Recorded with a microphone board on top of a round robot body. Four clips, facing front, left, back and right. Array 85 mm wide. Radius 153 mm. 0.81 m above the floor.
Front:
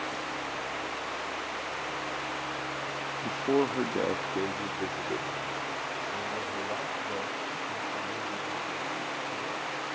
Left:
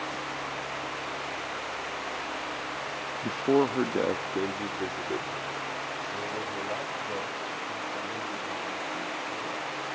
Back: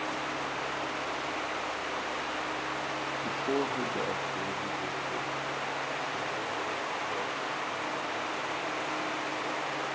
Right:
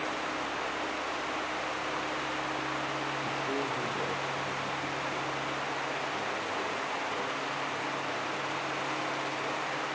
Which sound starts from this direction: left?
A man speaking, at 3.2 s.